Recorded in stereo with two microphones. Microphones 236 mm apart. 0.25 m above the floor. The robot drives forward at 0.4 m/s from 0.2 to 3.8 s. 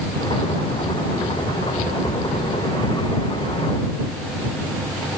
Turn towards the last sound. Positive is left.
No sound to turn to.